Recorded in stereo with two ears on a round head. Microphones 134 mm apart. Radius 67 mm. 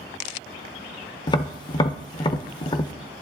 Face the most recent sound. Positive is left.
turn(degrees=30)  # may be behind; listen again after turning